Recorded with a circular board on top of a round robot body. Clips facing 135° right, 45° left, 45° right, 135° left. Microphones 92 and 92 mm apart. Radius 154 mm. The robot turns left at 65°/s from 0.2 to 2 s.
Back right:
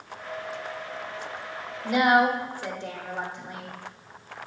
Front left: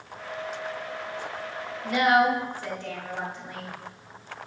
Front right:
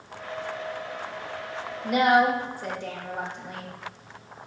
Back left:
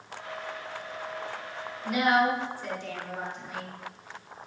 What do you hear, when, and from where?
1.8 s a woman speaking: 55° right, 1.9 m; by 3.7 s 65° right, 1.9 m